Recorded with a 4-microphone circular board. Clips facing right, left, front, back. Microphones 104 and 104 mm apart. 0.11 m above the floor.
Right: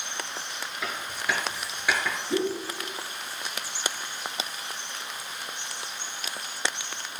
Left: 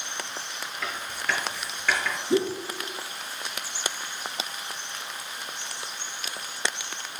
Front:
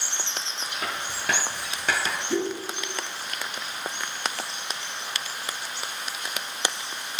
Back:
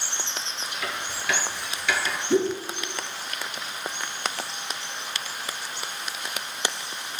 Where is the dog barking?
No dog barking in this recording.